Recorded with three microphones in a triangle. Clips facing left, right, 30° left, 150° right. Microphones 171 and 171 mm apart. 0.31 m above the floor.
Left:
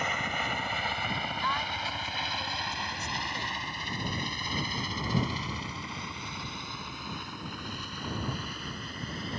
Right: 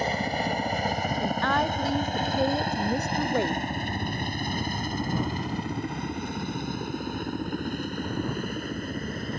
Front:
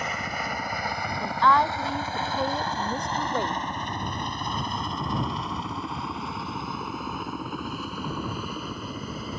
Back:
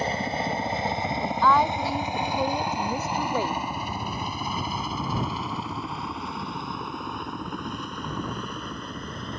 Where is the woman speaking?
65° right.